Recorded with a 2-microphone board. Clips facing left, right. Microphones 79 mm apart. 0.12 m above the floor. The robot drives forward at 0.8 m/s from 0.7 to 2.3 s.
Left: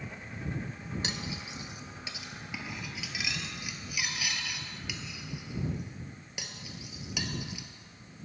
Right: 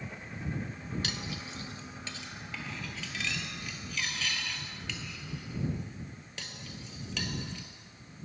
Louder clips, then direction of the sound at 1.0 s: Left 1 dB; 20° left (ahead or behind).